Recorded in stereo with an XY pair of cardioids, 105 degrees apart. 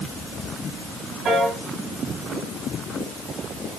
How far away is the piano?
About 3.5 m.